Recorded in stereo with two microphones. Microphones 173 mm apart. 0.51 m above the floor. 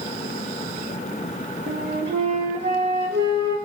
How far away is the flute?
About 5 m.